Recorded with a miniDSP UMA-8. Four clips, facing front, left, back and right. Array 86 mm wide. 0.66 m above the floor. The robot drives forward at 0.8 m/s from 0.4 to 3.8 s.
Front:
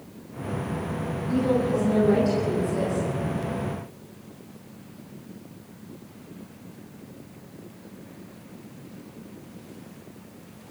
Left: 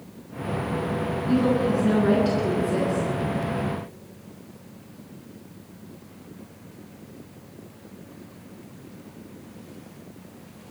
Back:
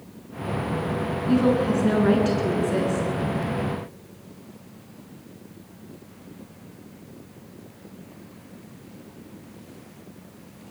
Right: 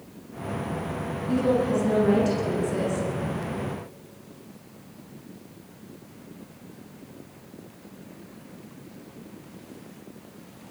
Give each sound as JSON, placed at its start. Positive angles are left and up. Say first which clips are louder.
{"t": 1.3, "sound": "a woman speaking", "louder": "left 1 dB, back 3 dB", "azimuth_deg": 165, "distance_m": 8.0}